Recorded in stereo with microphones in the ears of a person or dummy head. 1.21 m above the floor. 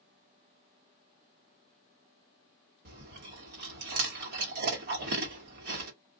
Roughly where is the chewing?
Right.